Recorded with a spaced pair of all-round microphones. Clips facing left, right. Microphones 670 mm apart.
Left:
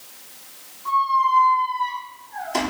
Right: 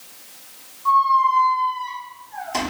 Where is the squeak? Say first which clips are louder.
Right 3 dB; 35° right (ahead or behind), 6.5 m.